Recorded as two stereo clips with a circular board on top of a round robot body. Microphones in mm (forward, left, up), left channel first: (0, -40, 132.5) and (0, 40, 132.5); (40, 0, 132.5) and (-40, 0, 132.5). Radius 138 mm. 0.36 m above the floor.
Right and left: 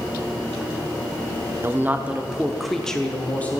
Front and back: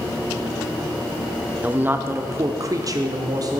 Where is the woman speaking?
120° left, 0.9 m; by 3.6 s 155° right, 1.3 m.